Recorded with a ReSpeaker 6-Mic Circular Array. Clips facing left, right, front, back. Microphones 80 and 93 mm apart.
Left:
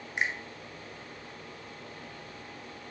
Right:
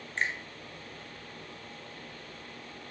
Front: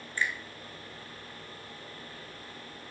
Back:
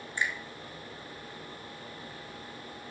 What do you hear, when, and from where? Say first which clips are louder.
0.2 s a finger snap: left 1 dB, even; 145° left, 1.1 m